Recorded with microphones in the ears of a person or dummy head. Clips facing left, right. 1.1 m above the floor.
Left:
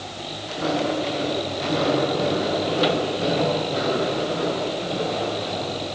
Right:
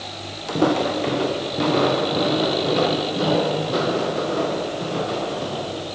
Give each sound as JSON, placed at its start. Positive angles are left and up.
{"t": 0.5, "sound": "footsteps", "side_deg": -60, "distance_m": 3.0}